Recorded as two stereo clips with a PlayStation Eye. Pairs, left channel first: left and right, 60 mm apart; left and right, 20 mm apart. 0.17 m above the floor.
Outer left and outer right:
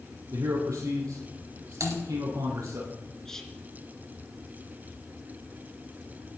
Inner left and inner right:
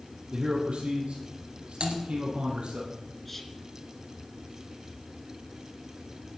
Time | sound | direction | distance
0.3 | a man speaking | 75° right (ahead or behind) | 4.5 m
1.8 | typing on a keyboard | 65° right (ahead or behind) | 3.5 m
3.2 | whispering | 10° left (ahead or behind) | 2.5 m